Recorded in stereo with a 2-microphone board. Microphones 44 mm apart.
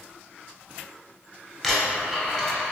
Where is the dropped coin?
Centre (ahead or behind), 0.9 m.